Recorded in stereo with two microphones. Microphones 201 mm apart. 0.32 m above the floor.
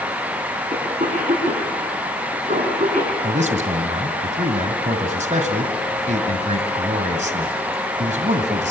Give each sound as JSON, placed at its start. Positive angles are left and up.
{"t": 0.7, "sound": "a cough", "side_deg": -35, "distance_m": 4.0}
{"t": 3.2, "sound": "a man speaking", "side_deg": -35, "distance_m": 2.0}